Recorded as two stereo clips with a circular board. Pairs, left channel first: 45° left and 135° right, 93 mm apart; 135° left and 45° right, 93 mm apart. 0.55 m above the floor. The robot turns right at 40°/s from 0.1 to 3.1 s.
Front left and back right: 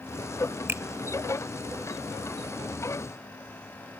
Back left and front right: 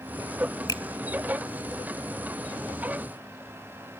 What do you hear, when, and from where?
0.7 s a finger snap: 165° left, 1.2 m; by 0.8 s 170° left, 1.2 m